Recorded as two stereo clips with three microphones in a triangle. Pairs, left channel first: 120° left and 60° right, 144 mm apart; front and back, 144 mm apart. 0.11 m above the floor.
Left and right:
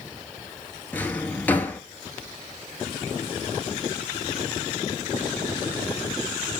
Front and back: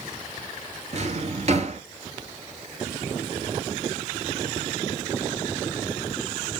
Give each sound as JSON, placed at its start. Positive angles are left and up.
{"t": 0.9, "sound": "a drawer", "azimuth_deg": -165, "distance_m": 0.8}